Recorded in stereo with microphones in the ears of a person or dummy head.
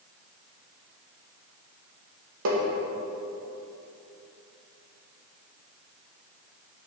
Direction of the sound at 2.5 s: 75° right (ahead or behind).